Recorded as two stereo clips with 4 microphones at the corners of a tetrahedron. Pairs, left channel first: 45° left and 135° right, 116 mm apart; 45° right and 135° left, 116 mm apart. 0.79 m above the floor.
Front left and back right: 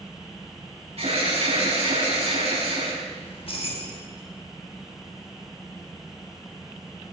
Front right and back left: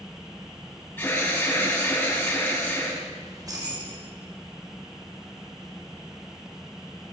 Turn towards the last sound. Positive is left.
turn(degrees=80)